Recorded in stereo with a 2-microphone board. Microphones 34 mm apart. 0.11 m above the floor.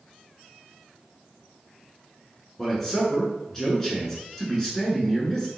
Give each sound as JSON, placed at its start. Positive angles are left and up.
{"t": 2.6, "sound": "a man speaking", "side_deg": 10, "distance_m": 1.1}